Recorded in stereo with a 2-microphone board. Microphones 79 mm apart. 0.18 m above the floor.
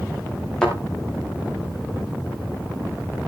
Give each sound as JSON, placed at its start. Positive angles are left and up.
{"t": 0.6, "sound": "a thud", "side_deg": 10, "distance_m": 9.5}